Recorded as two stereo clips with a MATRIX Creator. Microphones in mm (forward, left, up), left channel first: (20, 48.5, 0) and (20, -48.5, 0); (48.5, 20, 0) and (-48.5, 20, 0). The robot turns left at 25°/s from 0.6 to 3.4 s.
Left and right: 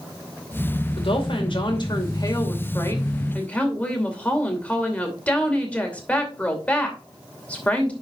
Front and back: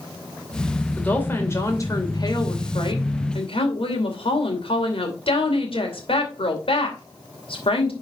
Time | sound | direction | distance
1.0 | a woman speaking | 75° left | 2.5 m